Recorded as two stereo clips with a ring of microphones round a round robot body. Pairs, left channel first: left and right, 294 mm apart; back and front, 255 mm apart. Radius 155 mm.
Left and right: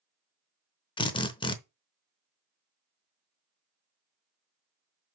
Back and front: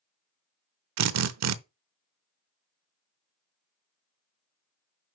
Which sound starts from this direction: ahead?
A drill, at 1.0 s.